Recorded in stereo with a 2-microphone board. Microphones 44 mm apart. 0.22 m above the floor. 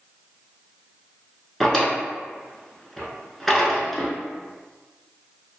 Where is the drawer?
5° left (ahead or behind), 0.6 m.